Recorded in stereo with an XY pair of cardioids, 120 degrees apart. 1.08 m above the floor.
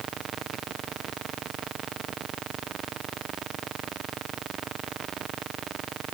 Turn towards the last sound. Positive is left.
No sound to turn to.